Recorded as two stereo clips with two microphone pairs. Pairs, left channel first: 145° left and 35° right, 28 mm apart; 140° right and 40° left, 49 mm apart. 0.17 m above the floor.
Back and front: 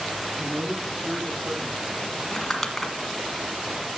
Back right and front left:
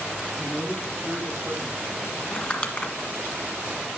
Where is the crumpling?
135° right, 1.5 m.